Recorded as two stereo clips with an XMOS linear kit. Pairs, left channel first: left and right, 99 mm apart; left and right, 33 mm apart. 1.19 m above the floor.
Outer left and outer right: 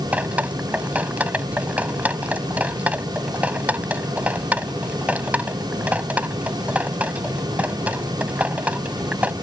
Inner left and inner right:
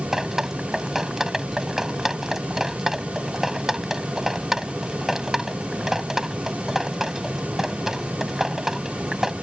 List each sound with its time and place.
0.1 s dripping: 15° right (ahead or behind)